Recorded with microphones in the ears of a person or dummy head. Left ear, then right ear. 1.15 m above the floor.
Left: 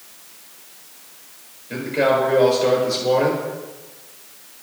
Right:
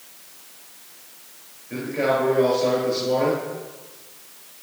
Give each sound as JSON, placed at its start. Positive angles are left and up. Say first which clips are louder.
{"t": 1.7, "sound": "a man speaking", "louder": "left 4 dB", "side_deg": 70, "distance_m": 4.0}